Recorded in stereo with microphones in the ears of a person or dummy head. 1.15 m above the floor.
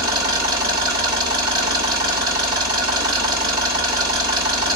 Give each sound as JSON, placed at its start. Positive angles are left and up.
{"t": 0.0, "sound": "an engine running", "side_deg": -20, "distance_m": 3.0}